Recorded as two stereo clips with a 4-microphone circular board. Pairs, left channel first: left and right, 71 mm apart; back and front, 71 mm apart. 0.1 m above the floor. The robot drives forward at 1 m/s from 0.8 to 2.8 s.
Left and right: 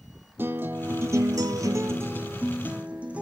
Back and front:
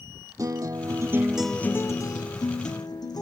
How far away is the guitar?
About 0.8 m.